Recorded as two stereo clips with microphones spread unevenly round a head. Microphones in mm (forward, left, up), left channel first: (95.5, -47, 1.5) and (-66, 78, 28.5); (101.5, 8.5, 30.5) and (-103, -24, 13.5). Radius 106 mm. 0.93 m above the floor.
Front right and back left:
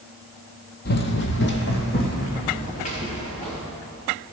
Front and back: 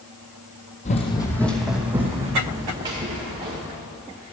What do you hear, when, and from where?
0.8 s running footsteps: 15° right, 1.2 m; by 3.6 s 100° right, 4 m